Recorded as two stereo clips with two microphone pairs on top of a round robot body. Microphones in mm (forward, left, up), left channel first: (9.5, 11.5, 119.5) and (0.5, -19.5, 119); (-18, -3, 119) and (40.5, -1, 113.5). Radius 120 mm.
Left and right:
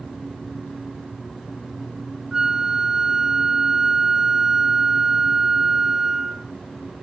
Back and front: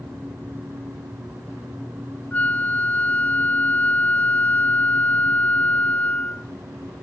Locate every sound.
2.3 s a flute: 135° right, 0.8 m